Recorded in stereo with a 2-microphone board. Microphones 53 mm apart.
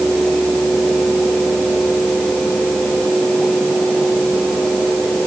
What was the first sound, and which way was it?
Only background noise.